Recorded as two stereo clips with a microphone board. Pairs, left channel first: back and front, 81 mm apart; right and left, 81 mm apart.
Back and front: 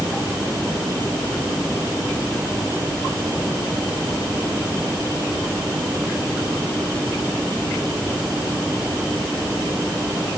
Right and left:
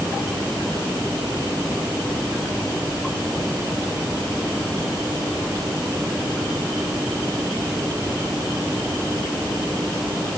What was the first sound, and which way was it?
Only background noise.